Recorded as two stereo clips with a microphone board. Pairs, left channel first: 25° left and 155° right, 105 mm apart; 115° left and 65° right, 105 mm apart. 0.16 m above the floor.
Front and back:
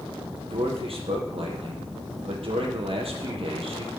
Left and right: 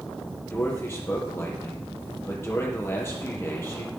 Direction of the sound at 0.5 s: Straight behind.